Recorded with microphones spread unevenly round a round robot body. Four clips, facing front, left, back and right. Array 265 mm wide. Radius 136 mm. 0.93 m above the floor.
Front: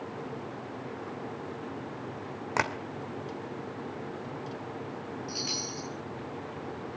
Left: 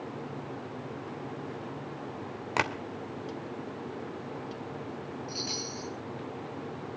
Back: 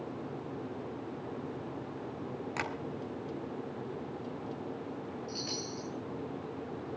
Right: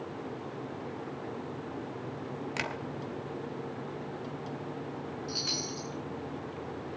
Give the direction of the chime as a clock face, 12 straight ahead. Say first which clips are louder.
Even, front 2 dB; 2 o'clock.